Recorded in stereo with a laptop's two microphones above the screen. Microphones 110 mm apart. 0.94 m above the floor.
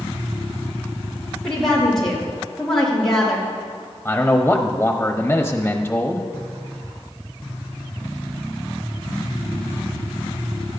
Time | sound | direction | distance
1.4 | a woman speaking | 5° left (ahead or behind) | 2.5 m
4.0 | a man speaking | 15° left (ahead or behind) | 0.9 m